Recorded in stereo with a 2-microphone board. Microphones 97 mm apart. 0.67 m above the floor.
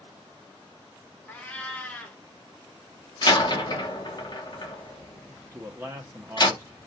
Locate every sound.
1.3 s a cat meowing: 15° left (ahead or behind), 0.6 m
3.2 s a door slam: 45° left (ahead or behind), 0.9 m
5.5 s a man speaking: 25° right (ahead or behind), 0.6 m